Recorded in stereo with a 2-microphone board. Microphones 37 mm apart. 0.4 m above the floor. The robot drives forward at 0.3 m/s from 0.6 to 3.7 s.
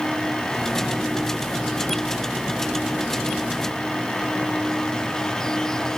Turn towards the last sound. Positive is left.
No sound to turn to.